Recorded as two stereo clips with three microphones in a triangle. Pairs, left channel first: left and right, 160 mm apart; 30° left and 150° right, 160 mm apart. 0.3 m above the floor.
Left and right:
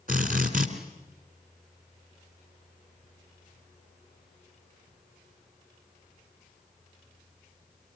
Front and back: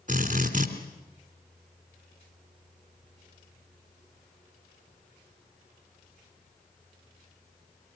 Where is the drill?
115° right, 3 m.